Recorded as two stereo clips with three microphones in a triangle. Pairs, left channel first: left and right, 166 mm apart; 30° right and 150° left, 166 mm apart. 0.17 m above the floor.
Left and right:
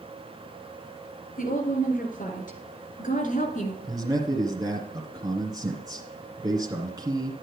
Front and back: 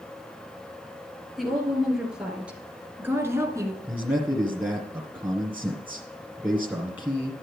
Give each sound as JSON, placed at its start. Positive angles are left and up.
{"t": 1.4, "sound": "a woman speaking", "azimuth_deg": 60, "distance_m": 3.5}
{"t": 3.8, "sound": "a man speaking", "azimuth_deg": -135, "distance_m": 1.7}